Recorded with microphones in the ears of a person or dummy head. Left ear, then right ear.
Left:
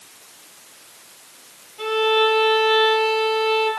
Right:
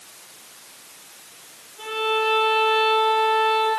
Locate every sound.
1.8 s a violin: 30° left (ahead or behind), 8.5 m